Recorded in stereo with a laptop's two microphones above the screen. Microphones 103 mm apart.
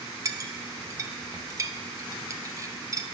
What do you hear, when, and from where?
0.2 s a clink: 30° right (ahead or behind), 0.5 m